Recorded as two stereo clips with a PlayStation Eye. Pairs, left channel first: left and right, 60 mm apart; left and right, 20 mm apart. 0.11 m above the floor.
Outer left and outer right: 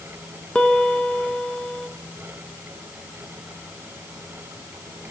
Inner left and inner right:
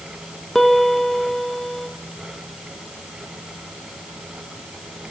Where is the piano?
15° left (ahead or behind), 1.1 m.